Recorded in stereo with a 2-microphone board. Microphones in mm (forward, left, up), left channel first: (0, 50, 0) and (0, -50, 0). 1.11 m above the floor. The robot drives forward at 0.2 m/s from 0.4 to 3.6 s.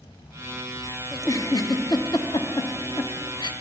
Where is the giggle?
35° left (ahead or behind), 0.8 m; by 3.5 s 50° left (ahead or behind), 0.6 m.